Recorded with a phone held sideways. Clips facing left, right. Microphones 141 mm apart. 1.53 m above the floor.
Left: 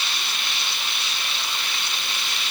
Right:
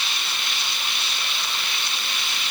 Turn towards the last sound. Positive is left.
No sound to turn to.